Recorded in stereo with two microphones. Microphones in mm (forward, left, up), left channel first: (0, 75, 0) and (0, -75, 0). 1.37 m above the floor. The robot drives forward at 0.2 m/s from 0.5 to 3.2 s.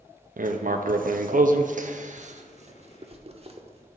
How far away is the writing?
About 0.5 m.